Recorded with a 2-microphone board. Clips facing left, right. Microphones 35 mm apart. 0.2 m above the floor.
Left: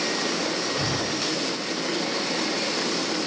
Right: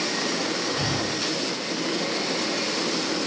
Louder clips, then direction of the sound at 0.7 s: Even; 10° right (ahead or behind).